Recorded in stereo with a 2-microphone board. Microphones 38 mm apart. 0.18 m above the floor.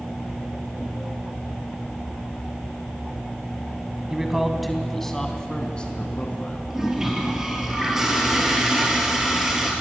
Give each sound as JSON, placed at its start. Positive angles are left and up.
{"t": 4.1, "sound": "a man speaking", "side_deg": -15, "distance_m": 1.6}
{"t": 6.7, "sound": "a toilet flushing", "side_deg": -15, "distance_m": 4.0}